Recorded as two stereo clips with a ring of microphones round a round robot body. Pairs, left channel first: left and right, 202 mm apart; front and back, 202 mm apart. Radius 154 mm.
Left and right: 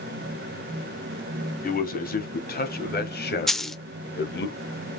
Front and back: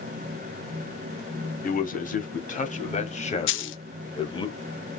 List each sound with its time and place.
1.6 s a man speaking: 45° left, 3 m; by 4.5 s 65° left, 1.8 m
3.5 s a dropped coin: straight ahead, 0.8 m